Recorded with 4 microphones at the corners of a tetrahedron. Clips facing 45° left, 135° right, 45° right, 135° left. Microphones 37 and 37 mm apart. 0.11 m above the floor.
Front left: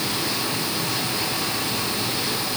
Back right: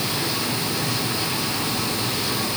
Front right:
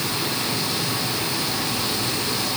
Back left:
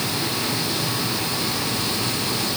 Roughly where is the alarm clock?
I don't hear an alarm clock.